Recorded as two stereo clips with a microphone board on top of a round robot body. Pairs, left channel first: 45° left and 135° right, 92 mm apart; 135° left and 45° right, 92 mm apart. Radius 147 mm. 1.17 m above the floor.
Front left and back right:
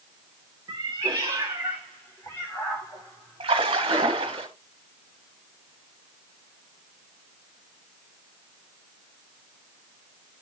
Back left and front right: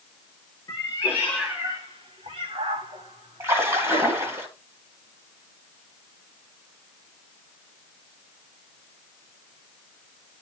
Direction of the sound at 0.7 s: Straight behind.